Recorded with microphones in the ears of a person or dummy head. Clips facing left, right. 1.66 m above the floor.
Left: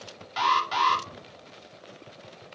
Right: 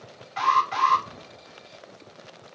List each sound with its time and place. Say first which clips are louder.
0.4 s an alarm: right 2 dB; 50° left (ahead or behind), 2 m